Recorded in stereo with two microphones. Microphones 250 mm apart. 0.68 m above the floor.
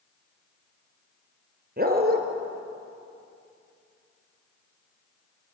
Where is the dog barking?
35° right (ahead or behind), 3.5 m.